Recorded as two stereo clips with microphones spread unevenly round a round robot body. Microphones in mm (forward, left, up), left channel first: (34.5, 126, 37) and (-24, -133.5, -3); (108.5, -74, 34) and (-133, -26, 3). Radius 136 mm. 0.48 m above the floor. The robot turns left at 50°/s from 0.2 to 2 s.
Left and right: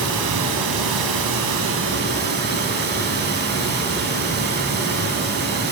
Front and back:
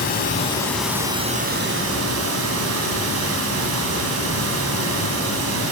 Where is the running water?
70° right, 1.2 m; by 5.7 s 160° right, 1.2 m.